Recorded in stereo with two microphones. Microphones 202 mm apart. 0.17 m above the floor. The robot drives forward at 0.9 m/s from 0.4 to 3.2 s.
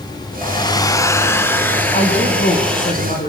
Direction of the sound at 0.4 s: 20° left (ahead or behind).